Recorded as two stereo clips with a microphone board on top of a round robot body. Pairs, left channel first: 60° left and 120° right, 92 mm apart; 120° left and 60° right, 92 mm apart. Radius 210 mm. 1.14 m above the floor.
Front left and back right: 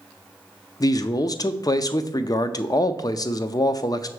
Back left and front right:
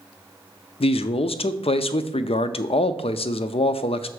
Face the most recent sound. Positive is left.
turn(degrees=110)